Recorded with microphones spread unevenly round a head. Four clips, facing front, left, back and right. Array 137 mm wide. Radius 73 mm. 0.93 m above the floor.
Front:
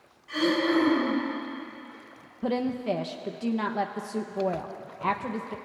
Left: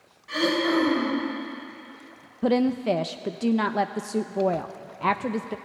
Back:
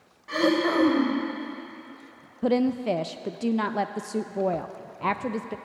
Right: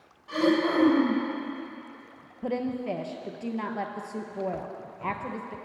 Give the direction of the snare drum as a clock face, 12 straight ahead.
No snare drum in this recording.